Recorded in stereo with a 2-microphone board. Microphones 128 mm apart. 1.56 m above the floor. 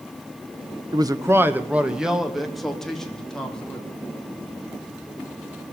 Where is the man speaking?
35° right (ahead or behind), 1.4 m; by 3.9 s 5° left (ahead or behind), 5.5 m.